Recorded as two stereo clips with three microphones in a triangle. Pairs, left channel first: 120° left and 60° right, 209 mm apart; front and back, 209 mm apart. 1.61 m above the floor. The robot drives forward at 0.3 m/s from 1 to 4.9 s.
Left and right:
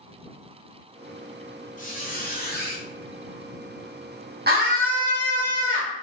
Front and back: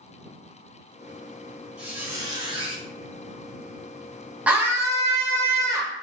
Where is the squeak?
95° left, 0.6 m; by 2.8 s 130° left, 0.7 m.